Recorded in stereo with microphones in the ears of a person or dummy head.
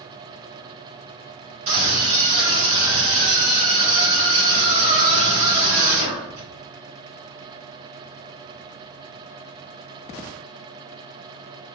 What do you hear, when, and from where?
1.7 s a scream: 30° right (ahead or behind), 3 m